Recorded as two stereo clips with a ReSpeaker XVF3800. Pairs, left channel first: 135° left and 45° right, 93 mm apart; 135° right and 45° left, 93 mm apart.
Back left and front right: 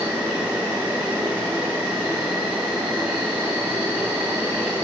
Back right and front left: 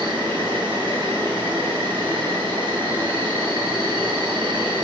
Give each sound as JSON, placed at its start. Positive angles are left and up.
{"t": 0.0, "sound": "an insect", "azimuth_deg": 15, "distance_m": 1.9}